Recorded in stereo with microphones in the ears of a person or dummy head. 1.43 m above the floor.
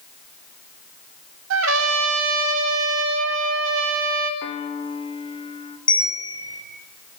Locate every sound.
1.5 s a trumpet: 75° right (ahead or behind), 1.9 m
4.4 s a piano: 30° left (ahead or behind), 1.9 m
5.9 s a bell: 40° left (ahead or behind), 7 m